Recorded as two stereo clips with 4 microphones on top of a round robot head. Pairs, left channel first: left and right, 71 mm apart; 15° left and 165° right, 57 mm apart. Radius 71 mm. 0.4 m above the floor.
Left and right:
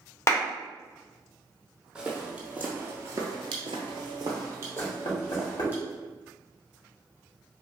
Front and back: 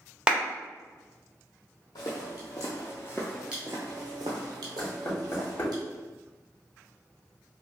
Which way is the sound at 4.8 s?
65° left.